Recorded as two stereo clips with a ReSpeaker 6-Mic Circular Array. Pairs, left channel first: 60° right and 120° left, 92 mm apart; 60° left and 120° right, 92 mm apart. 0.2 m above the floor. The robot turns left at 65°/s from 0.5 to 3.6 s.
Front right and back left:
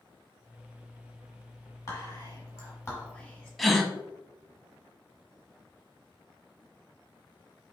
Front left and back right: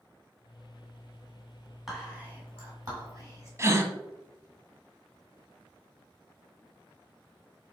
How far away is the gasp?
About 0.6 m.